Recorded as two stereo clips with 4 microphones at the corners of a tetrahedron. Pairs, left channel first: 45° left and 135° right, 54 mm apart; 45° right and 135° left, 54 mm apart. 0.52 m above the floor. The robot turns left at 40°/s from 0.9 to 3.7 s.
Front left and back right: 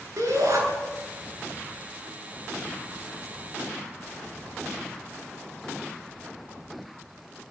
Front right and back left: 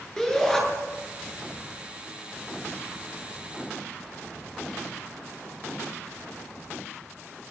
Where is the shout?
120° right, 8.5 m.